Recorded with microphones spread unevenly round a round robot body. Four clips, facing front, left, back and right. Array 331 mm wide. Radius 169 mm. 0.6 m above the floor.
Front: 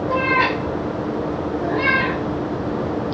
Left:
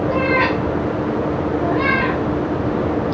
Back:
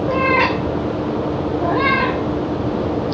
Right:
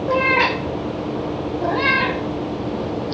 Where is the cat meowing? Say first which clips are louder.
Right 2 dB, back 2 dB; 145° right, 5 m; by 3.1 s 165° right, 2.5 m.